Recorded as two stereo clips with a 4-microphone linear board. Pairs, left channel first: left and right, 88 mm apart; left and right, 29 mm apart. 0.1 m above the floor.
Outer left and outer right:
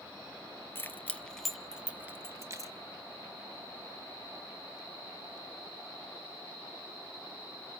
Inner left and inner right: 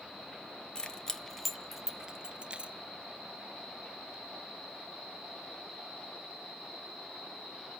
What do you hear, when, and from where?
0.8 s keys jangling: 25° left (ahead or behind), 1.0 m; by 2.7 s 35° right (ahead or behind), 1.1 m